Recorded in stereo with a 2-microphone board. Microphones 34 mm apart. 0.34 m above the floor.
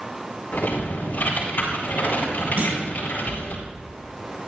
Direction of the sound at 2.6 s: 65° right (ahead or behind).